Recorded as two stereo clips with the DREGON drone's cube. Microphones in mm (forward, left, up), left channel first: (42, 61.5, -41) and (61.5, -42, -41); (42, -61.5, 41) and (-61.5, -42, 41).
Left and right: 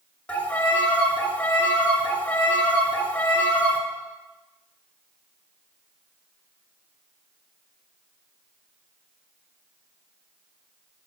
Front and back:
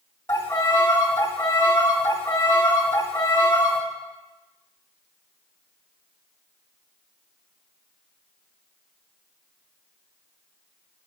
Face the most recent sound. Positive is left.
turn(degrees=40)